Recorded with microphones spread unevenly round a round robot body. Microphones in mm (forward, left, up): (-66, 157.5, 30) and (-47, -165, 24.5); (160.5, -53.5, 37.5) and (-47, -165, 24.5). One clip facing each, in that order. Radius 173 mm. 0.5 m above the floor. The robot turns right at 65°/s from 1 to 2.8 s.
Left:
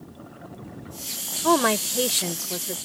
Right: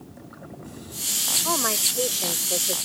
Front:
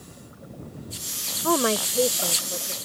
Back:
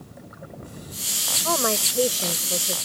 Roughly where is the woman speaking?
Left.